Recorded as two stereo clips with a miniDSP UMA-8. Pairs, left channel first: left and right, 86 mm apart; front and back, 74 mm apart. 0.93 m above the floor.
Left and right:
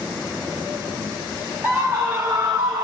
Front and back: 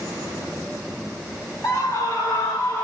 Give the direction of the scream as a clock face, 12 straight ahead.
1 o'clock.